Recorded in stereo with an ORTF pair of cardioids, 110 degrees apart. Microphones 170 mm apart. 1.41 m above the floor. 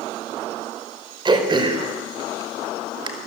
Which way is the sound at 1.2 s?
30° right.